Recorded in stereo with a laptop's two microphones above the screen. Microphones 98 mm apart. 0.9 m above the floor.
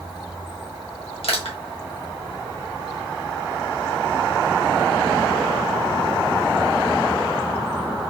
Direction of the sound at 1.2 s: 80° left.